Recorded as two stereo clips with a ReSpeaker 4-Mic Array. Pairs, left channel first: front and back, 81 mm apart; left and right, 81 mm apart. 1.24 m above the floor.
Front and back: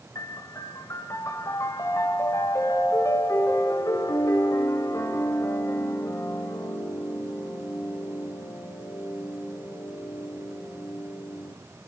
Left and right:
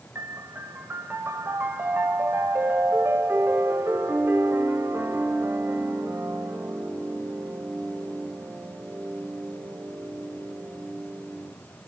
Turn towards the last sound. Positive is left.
turn(degrees=-35)